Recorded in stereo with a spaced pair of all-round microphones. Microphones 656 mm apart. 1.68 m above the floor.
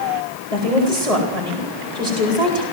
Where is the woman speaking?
70° left (ahead or behind), 8 m.